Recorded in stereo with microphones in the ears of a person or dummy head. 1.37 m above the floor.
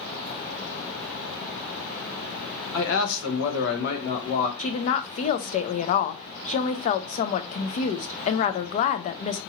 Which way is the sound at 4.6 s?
45° left (ahead or behind).